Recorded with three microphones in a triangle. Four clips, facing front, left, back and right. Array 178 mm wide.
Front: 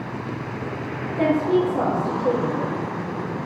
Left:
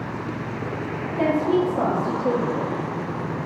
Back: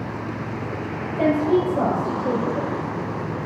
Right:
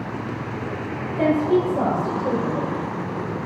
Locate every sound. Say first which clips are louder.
1.2 s a woman speaking: right 2 dB, even; 35° left, 3 m